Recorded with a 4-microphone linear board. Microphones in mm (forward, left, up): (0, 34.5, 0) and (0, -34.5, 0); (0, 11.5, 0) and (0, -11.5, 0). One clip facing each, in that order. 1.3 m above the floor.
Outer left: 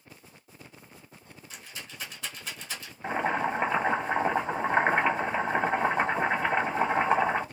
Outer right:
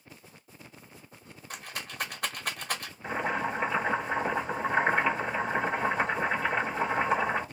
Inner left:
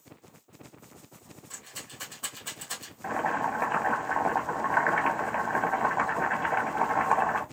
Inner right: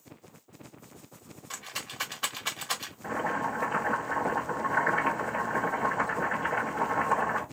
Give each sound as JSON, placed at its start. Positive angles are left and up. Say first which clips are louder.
{"t": 1.5, "sound": "a rattle", "louder": "outer right 5 dB, inner right 6 dB", "side_deg": -55, "distance_m": 0.8}
{"t": 3.0, "sound": "boiling", "louder": "outer left 3 dB, inner left 2 dB", "side_deg": 35, "distance_m": 1.1}